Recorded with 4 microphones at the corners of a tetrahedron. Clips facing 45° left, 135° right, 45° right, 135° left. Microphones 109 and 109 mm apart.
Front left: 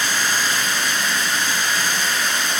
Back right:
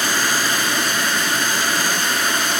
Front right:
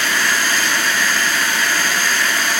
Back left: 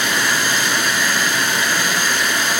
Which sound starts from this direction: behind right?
Running water, at 0.0 s.